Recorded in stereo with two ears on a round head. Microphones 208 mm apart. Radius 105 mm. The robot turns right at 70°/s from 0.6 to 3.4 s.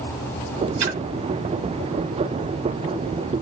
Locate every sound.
0.8 s a splash: 80° right, 1.6 m; by 1.0 s 85° right, 1.6 m